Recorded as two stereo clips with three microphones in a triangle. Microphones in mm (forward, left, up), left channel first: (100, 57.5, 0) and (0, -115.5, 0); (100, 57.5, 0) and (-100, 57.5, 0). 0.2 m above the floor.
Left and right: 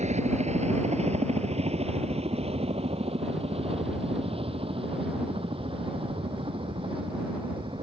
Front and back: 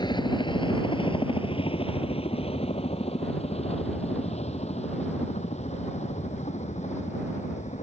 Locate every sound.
0.0 s a helicopter: 65° right; by 7.8 s 55° right